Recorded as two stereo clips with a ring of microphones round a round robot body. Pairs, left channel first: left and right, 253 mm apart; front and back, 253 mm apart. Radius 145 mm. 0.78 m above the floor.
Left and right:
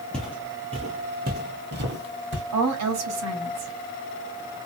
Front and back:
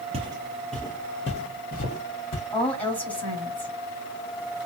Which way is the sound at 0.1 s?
175° left.